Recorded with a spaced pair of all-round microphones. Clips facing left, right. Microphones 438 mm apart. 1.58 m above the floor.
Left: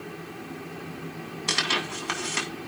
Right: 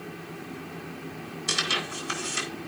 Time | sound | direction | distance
1.5 | tearing paper | 75° left (ahead or behind) | 2.5 m